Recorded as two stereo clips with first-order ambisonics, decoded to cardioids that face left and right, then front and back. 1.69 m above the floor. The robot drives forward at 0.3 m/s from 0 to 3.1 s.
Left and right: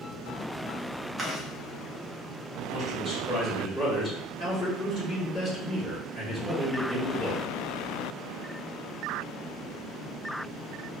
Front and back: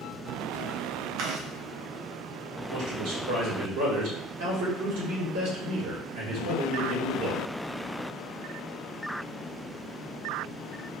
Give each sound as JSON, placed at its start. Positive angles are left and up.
{"t": 1.2, "sound": "chewing", "azimuth_deg": -170, "distance_m": 0.7}
{"t": 2.7, "sound": "a man speaking", "azimuth_deg": 165, "distance_m": 1.7}